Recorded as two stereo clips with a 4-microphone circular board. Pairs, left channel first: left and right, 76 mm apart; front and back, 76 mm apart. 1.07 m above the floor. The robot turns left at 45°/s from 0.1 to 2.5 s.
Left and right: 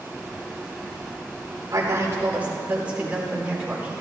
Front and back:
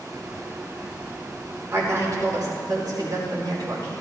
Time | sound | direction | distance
1.7 | a woman speaking | 125° right | 4 m